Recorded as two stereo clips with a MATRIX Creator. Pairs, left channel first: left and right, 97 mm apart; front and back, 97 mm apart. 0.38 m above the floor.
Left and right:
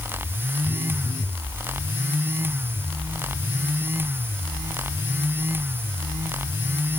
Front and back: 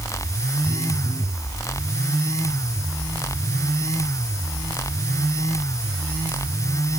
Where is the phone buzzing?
50° right, 3.5 m.